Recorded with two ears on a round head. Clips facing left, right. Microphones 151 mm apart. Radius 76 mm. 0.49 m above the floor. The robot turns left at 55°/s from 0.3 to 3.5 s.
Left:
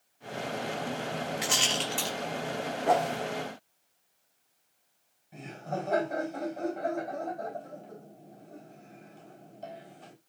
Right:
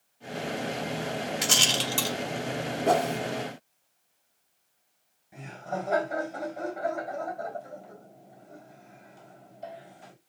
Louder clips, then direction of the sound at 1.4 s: Right 2 dB; 60° right (ahead or behind).